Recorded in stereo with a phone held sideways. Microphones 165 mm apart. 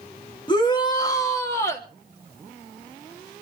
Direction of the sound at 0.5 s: 30° left (ahead or behind).